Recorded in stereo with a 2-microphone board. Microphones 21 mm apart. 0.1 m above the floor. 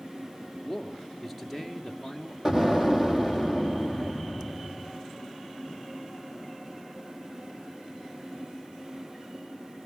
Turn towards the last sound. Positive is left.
turn(degrees=-20)  # may be behind; listen again after turning